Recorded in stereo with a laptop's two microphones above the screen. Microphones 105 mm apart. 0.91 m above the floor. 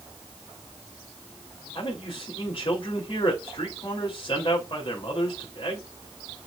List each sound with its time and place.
1.8 s a man speaking: 60° left (ahead or behind), 3 m